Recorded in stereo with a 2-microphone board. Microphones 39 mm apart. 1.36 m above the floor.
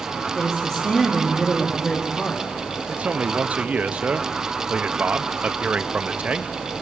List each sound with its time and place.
0.3 s a woman speaking: 20° left (ahead or behind), 2 m
2.9 s a man speaking: 35° right (ahead or behind), 0.6 m